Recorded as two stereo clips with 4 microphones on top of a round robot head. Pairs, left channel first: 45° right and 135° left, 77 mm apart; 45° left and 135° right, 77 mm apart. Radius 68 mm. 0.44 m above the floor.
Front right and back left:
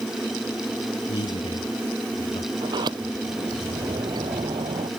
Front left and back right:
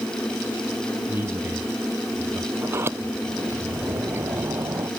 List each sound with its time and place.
1.1 s a man speaking: 65° right; by 2.5 s 75° right
2.6 s a sliding door: 165° left